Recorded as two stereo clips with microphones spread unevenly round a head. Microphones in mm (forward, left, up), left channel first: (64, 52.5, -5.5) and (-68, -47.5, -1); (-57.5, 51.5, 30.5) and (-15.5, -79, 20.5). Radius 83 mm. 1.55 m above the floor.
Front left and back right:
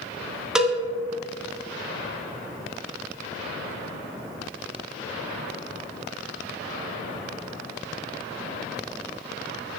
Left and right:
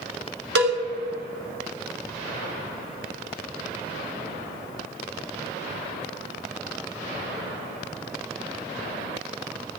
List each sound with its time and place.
0.6 s a cowbell: 55° right, 2 m